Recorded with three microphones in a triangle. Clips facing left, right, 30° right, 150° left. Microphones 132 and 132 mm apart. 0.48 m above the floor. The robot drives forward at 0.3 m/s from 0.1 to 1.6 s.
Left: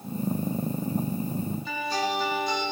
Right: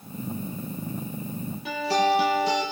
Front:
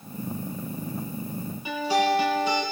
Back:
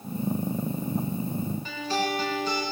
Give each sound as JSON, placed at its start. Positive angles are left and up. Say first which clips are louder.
{"t": 1.6, "sound": "a guitar", "louder": "right 10 dB, front 9 dB", "azimuth_deg": -110, "distance_m": 7.5}